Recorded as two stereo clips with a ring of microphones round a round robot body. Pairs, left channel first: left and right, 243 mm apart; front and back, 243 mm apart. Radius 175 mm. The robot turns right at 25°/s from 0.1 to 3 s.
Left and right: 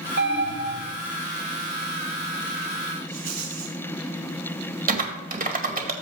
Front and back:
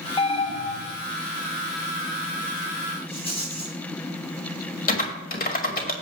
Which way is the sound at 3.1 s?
65° right.